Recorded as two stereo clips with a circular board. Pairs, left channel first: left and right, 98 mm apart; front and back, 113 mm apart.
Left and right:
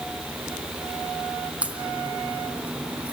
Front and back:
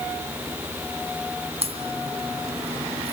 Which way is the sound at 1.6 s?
165° right.